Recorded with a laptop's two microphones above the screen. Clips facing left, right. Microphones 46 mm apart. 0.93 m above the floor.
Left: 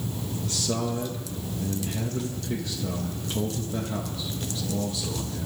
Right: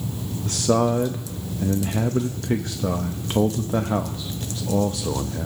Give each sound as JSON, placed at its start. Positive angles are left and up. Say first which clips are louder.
{"t": 0.5, "sound": "a man speaking", "louder": "right 10 dB", "side_deg": -55, "distance_m": 0.6}